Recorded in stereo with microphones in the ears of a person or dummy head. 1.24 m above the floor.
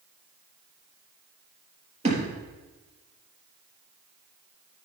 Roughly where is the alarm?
I don't hear an alarm.